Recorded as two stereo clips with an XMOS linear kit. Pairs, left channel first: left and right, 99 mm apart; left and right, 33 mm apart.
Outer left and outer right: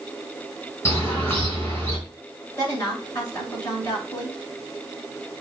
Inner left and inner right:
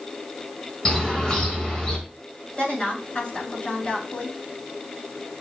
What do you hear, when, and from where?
0.8 s a bird: 25° left (ahead or behind), 2.5 m
2.6 s a woman speaking: 45° left (ahead or behind), 5 m